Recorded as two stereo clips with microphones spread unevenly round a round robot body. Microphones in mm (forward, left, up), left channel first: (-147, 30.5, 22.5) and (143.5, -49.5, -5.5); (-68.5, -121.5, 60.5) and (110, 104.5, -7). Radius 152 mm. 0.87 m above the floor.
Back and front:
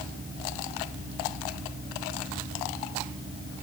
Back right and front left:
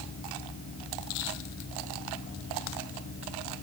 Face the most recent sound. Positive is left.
No sound to turn to.